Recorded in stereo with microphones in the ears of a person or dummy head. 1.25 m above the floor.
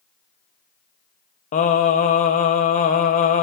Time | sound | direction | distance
1.5 | singing | 40° left (ahead or behind) | 1.7 m